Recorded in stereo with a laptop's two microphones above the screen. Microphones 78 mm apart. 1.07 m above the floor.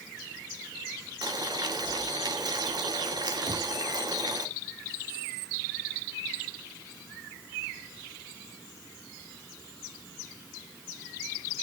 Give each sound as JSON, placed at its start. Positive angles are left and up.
{"t": 1.2, "sound": "boiling", "side_deg": -60, "distance_m": 1.8}
{"t": 3.5, "sound": "knocking", "side_deg": -65, "distance_m": 2.0}